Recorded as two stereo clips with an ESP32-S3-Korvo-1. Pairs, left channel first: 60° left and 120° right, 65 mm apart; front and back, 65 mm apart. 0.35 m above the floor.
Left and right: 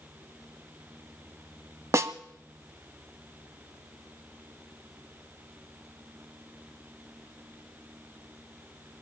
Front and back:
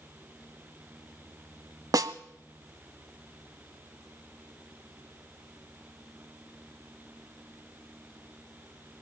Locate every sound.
1.9 s a snare drum: 160° right, 0.8 m